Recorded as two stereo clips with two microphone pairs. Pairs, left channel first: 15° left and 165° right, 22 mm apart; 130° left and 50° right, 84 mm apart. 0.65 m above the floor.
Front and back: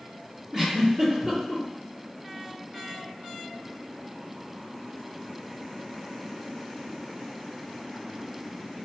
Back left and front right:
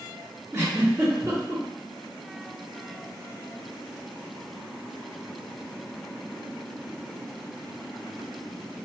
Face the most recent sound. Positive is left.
turn(degrees=-100)